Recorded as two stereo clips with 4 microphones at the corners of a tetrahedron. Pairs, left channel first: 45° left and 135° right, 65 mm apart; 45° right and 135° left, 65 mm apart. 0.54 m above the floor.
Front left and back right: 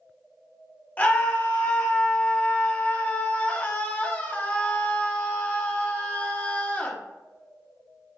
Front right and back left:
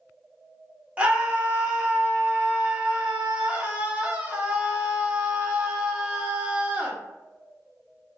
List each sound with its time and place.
1.0 s a scream: 85° left, 0.8 m